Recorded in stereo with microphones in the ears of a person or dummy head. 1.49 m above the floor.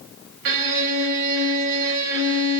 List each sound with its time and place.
0.5 s a violin: 65° right (ahead or behind), 1.9 m